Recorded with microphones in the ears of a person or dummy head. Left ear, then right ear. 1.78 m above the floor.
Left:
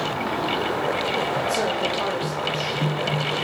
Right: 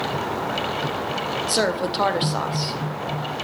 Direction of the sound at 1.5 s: 35° right (ahead or behind).